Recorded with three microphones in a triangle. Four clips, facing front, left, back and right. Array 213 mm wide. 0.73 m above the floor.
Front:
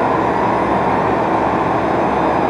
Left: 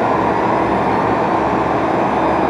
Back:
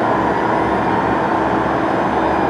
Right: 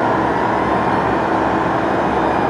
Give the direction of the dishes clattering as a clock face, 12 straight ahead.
No dishes clattering in this recording.